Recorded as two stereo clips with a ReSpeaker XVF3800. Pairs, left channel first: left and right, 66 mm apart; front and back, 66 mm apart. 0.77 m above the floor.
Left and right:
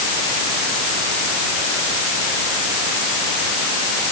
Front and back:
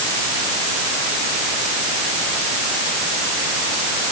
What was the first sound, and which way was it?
Only background noise.